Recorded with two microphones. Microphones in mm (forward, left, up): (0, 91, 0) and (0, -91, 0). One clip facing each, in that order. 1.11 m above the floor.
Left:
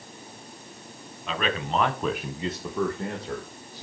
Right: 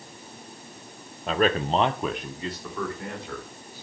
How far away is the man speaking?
About 1.1 m.